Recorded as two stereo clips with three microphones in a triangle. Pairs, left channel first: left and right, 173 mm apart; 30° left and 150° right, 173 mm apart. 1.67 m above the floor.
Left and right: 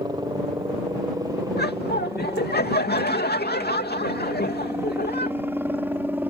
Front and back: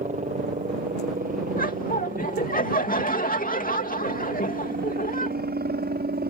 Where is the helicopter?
145° right; by 6.3 s 170° right.